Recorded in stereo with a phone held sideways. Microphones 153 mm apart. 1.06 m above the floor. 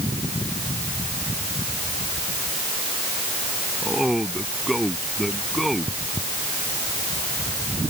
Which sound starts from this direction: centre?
A man speaking, at 3.8 s.